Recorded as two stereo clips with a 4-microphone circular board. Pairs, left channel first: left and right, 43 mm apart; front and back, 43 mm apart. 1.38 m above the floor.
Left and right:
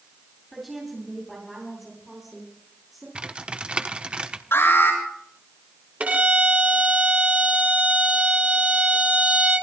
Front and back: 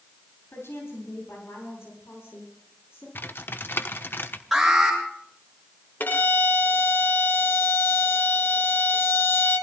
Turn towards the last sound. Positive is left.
turn(degrees=-35)